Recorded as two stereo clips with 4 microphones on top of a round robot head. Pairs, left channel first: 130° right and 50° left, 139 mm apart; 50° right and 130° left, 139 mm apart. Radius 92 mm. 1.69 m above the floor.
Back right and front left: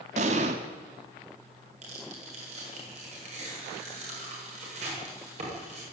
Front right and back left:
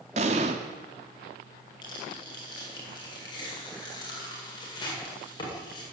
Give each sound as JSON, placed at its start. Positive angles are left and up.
{"t": 0.2, "sound": "an explosion", "azimuth_deg": 90, "distance_m": 1.7}
{"t": 1.8, "sound": "tearing paper", "azimuth_deg": 10, "distance_m": 8.0}